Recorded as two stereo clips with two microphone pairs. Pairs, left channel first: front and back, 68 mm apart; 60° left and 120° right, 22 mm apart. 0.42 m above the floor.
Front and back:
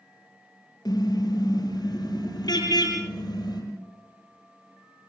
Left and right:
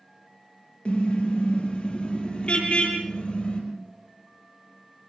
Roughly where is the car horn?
Ahead left.